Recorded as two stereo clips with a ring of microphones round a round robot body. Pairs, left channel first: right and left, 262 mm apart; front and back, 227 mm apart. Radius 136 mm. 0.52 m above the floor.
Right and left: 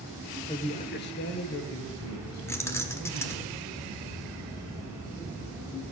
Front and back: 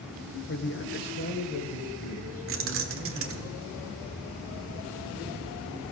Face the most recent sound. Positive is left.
turn(degrees=-170)